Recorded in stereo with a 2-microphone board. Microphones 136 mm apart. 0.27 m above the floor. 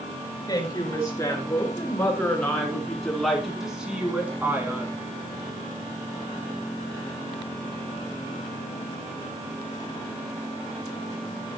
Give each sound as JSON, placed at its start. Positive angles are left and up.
{"t": 0.5, "sound": "a woman speaking", "side_deg": 25, "distance_m": 5.0}